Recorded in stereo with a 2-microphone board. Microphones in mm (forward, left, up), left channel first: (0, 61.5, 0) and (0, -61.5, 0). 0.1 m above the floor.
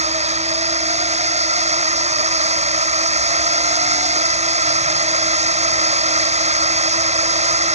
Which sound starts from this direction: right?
A drone, at 0.0 s.